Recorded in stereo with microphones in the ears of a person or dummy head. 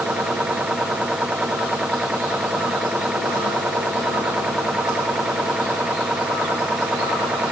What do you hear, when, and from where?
0.0 s a machine running: 5° right (ahead or behind)